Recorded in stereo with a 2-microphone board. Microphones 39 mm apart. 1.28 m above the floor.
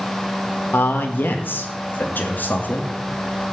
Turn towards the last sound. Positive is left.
turn(degrees=50)  # may be behind; listen again after turning